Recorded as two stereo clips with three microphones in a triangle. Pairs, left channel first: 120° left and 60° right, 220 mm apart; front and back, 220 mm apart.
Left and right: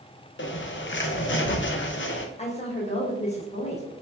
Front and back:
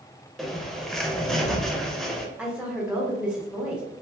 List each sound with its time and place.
0.4 s a bird: 90° left, 0.5 m
2.4 s a woman speaking: 95° left, 0.9 m